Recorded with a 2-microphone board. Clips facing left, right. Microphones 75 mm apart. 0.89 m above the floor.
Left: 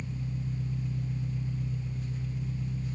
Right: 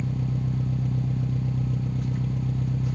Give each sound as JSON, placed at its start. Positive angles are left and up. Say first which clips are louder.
{"t": 0.0, "sound": "an engine running", "louder": "right 8 dB", "side_deg": -65, "distance_m": 0.9}